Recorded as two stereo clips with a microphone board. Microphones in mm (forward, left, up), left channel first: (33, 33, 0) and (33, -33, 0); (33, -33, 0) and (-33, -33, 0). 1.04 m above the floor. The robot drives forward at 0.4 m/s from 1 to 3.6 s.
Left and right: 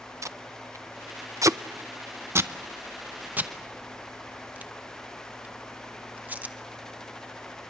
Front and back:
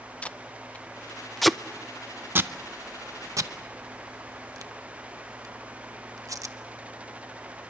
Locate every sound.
0.2 s tape being pulled: 65° right, 0.6 m; by 6.5 s 155° right, 1.0 m